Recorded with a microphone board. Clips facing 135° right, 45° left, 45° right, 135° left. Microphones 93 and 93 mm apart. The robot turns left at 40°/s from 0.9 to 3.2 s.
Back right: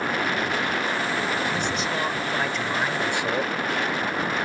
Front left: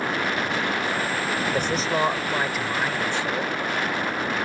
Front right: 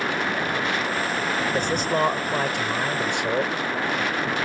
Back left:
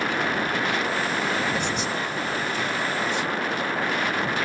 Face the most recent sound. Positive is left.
turn(degrees=-65)